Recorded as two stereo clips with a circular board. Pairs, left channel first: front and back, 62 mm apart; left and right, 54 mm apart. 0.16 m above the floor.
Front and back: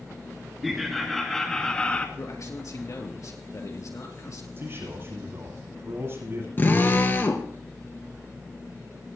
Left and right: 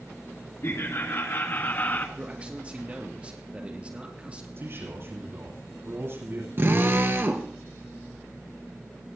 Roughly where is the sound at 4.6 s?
Behind right.